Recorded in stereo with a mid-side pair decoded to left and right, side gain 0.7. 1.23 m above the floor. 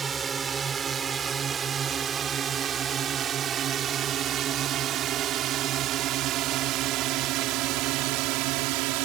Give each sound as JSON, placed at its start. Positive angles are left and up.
{"t": 0.0, "sound": "a drone", "azimuth_deg": -25}